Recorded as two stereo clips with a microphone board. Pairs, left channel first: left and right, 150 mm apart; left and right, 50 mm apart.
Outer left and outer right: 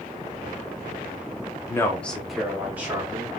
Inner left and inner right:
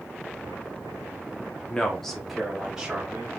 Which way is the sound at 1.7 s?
20° left (ahead or behind).